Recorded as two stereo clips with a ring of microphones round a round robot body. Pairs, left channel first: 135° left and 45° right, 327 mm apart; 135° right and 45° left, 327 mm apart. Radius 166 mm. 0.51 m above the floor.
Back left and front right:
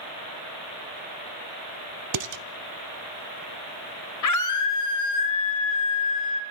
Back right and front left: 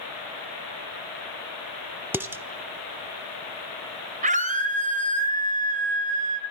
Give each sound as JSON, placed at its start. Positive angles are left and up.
{"t": 2.1, "sound": "dishes clattering", "azimuth_deg": -35, "distance_m": 0.9}
{"t": 4.2, "sound": "a scream", "azimuth_deg": 110, "distance_m": 3.0}